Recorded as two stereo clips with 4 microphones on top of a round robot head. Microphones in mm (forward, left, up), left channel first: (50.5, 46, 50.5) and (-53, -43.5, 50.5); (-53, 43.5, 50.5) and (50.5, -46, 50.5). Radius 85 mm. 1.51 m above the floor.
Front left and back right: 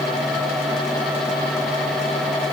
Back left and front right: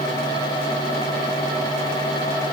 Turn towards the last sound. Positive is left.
No sound to turn to.